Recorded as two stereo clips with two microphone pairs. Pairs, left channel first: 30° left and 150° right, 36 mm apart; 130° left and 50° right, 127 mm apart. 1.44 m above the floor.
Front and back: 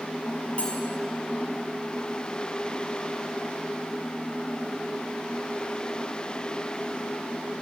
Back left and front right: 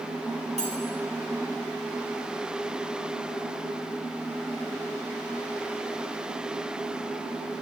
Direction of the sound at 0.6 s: 25° right.